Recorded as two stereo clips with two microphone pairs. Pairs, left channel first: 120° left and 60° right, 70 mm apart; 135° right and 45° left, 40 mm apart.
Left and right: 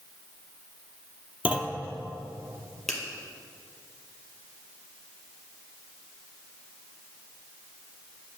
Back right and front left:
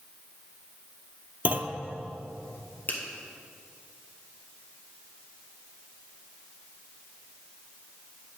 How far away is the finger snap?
About 2 m.